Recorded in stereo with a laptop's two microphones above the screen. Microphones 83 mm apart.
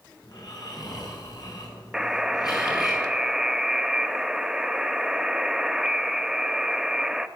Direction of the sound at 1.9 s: 5° right (ahead or behind).